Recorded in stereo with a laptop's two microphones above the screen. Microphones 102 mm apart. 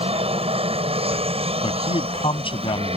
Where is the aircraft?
75° right (ahead or behind).